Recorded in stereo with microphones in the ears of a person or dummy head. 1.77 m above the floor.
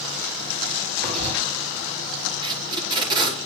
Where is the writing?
35° right (ahead or behind), 4 m.